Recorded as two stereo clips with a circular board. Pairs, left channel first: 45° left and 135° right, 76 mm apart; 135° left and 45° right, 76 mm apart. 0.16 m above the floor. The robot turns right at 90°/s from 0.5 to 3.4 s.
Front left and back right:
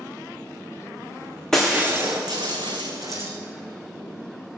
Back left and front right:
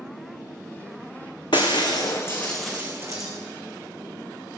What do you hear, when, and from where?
1.5 s breaking glass: 125° left, 1.9 m; by 3.3 s 70° right, 1.9 m